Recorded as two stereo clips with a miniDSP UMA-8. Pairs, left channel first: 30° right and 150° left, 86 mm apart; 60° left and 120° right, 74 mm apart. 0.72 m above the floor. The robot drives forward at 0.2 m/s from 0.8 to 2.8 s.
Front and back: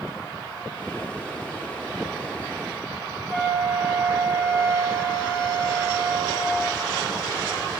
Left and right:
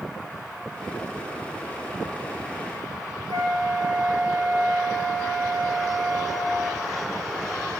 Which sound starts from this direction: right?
A flute, at 3.3 s.